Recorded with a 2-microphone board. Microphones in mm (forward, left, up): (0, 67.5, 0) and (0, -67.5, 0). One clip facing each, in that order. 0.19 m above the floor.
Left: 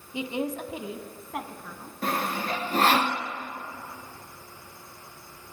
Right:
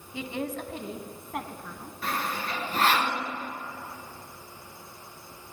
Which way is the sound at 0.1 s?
20° left (ahead or behind).